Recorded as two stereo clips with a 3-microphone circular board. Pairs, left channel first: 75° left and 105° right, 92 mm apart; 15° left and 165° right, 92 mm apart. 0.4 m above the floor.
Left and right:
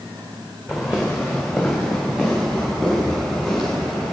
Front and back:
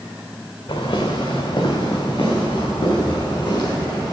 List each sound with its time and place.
0.7 s footsteps: 20° right, 2.0 m